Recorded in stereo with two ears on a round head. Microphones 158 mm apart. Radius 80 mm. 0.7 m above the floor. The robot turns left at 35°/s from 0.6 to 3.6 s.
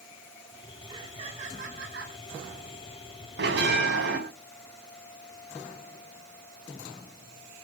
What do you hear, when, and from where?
0.9 s laughter: 20° right, 5 m; by 2.2 s 65° right, 5 m
3.4 s a bell: 60° right (ahead or behind), 4.5 m; by 4.2 s 70° right (ahead or behind), 4.5 m